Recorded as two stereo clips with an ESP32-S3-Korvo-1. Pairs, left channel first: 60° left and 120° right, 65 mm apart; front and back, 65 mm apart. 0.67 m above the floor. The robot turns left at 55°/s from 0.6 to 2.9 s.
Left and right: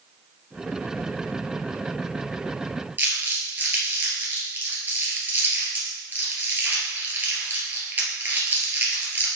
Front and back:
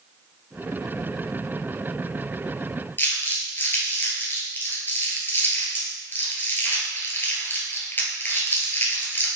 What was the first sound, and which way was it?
Crumpling, 60° right.